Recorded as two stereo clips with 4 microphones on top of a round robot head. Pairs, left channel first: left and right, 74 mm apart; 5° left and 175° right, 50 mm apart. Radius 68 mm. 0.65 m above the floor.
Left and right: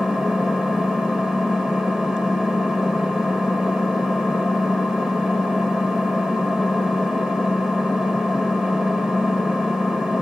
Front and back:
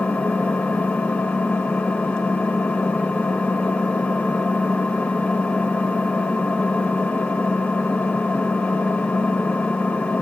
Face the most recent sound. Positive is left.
turn(degrees=-20)